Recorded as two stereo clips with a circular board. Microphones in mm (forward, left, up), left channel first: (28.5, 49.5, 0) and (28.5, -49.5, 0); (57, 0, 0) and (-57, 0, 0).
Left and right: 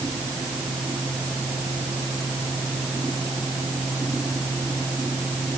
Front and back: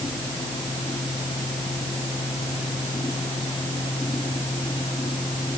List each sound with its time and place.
Only background noise.